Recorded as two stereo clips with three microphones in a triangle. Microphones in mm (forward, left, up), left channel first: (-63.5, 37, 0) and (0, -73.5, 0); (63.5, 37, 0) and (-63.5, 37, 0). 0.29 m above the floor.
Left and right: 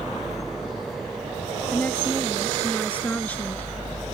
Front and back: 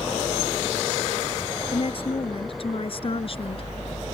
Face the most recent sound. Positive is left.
turn(degrees=40)